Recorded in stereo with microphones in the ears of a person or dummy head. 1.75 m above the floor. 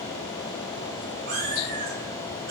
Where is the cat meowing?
40° right (ahead or behind), 1.7 m.